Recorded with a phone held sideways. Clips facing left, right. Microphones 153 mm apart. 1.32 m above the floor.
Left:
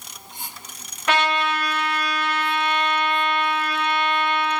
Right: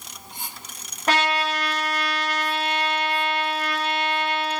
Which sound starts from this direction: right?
A trumpet, at 1.1 s.